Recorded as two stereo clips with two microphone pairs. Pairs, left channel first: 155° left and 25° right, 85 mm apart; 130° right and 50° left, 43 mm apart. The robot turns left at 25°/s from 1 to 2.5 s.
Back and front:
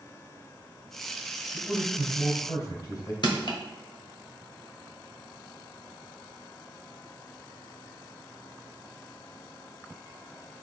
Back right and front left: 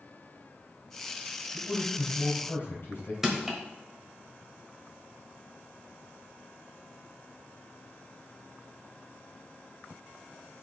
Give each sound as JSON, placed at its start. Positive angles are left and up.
{"t": 1.5, "sound": "a man speaking", "azimuth_deg": -140, "distance_m": 3.0}
{"t": 3.2, "sound": "crushing", "azimuth_deg": 135, "distance_m": 1.5}